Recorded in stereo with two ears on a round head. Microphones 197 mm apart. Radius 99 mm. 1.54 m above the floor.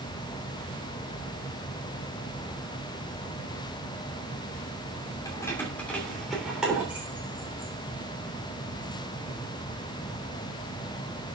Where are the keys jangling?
15° left (ahead or behind), 2.5 m; by 9.4 s 25° right (ahead or behind), 5 m.